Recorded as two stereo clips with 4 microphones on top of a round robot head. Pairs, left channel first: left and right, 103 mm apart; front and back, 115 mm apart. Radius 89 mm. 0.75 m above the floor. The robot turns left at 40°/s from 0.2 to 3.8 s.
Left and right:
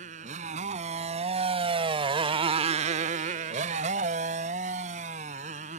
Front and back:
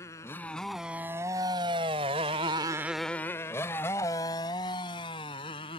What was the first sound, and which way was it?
A motorcycle, 75° right.